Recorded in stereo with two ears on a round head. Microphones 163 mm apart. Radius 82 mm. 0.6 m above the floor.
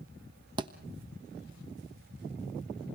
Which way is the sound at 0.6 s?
25° right (ahead or behind).